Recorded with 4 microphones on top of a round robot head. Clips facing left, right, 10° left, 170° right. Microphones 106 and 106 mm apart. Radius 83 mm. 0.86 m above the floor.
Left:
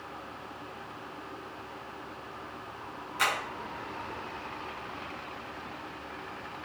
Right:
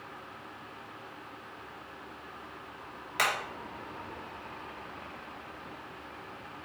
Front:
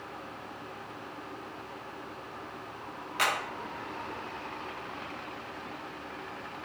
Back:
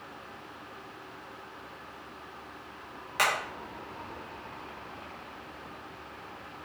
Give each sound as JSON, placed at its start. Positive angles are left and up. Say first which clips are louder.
{"t": 3.2, "sound": "hammering", "louder": "even, back 2 dB", "azimuth_deg": -115, "distance_m": 3.0}